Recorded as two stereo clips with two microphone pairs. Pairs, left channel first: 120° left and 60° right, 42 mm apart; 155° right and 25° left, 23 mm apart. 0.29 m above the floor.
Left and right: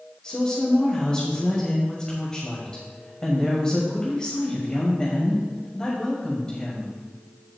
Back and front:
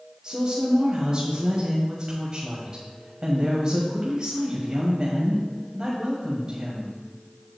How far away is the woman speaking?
About 1.9 m.